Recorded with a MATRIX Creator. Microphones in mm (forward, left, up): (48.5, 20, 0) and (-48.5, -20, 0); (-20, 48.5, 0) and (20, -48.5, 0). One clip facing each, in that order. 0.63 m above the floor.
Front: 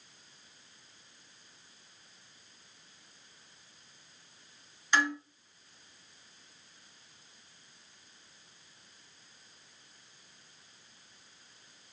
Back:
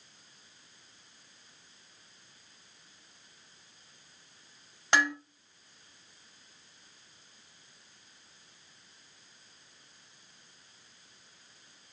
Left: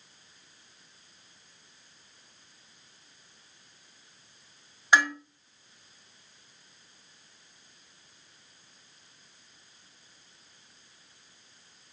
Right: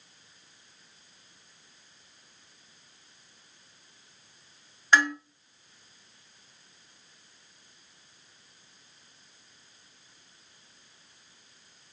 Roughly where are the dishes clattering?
Behind.